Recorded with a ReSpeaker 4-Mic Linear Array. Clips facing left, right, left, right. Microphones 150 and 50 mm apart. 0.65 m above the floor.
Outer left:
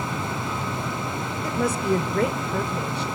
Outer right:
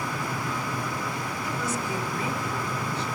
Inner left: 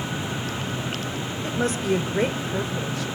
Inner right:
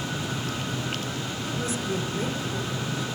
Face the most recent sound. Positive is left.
turn(degrees=75)  # may be behind; listen again after turning